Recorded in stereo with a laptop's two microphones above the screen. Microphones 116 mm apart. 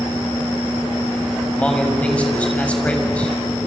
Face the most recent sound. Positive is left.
turn(degrees=10)  # may be behind; listen again after turning